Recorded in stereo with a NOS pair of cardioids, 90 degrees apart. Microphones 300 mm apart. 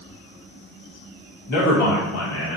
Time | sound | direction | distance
1.5 | a man speaking | 70° left | 2.5 m